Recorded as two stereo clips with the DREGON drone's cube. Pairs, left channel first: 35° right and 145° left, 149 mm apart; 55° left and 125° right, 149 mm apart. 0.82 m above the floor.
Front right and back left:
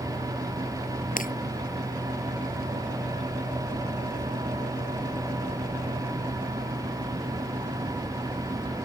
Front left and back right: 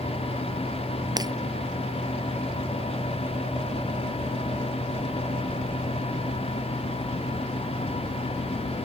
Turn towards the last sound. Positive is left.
turn(degrees=-60)